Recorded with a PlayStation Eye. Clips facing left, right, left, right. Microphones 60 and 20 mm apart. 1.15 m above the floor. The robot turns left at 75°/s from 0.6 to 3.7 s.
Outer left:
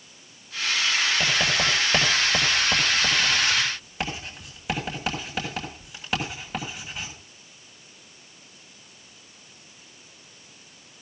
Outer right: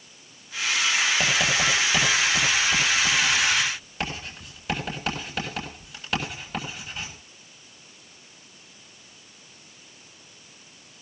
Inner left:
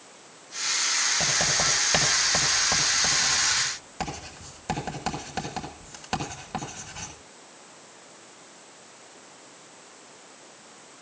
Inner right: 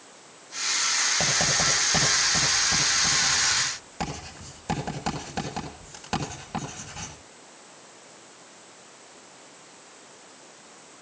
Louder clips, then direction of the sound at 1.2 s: Outer right 1 dB, inner right 1 dB; 15° right (ahead or behind).